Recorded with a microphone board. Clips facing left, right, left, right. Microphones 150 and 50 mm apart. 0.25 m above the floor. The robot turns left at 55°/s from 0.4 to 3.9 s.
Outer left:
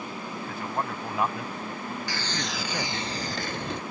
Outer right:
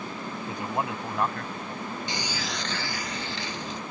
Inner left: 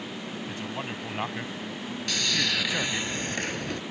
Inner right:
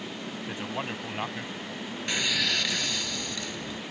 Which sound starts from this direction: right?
A man speaking, at 0.5 s.